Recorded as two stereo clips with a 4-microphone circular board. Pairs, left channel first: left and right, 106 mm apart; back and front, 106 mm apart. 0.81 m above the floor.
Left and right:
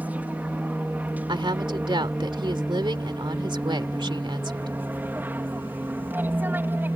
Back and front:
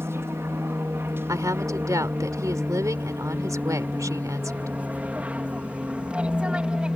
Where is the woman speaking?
55° right.